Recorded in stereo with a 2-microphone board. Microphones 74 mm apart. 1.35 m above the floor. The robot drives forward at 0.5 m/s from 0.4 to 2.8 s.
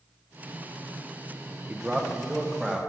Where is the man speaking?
15° right (ahead or behind), 1.1 m; by 2.8 s 10° right (ahead or behind), 1.6 m.